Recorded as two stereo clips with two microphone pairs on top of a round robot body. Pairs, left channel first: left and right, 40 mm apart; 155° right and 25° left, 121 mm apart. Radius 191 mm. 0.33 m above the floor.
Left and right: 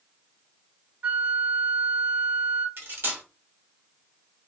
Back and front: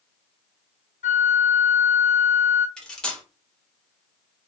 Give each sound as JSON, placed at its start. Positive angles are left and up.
{"t": 1.0, "sound": "a flute", "azimuth_deg": -140, "distance_m": 0.9}
{"t": 2.8, "sound": "cutlery clinking", "azimuth_deg": -70, "distance_m": 1.3}